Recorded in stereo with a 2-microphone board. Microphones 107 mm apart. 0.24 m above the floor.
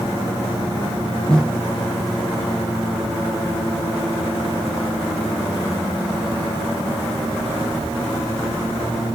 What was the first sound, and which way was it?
A snare drum, 10° left (ahead or behind).